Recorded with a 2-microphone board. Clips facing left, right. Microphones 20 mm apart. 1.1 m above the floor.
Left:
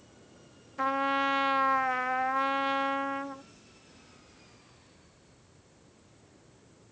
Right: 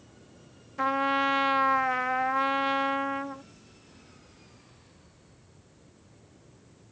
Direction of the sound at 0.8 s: 5° right (ahead or behind).